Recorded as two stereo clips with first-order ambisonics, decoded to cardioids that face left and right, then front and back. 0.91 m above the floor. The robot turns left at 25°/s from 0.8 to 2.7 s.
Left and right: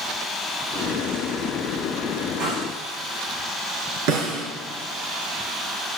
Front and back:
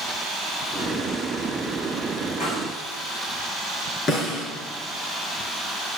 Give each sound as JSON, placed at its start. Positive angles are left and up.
{"t": 2.4, "sound": "a snare drum", "azimuth_deg": -70, "distance_m": 9.0}
{"t": 4.1, "sound": "a snare drum", "azimuth_deg": -70, "distance_m": 4.5}